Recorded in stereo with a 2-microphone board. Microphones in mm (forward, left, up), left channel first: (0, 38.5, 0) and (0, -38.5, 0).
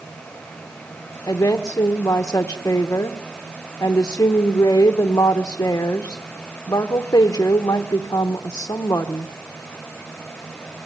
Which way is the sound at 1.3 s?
40° left (ahead or behind).